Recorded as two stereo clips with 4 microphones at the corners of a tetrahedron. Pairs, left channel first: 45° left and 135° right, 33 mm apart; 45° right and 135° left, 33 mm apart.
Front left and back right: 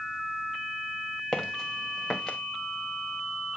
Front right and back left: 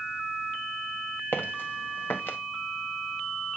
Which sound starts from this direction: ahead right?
Footsteps, at 1.3 s.